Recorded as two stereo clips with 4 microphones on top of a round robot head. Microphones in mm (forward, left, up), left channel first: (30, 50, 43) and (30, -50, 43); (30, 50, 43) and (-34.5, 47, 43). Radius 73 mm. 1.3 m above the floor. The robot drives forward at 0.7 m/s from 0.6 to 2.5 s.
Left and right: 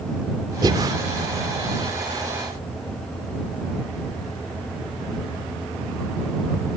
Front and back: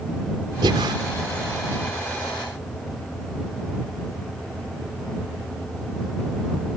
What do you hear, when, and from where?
0.6 s breathing: 150° right; by 0.9 s 155° right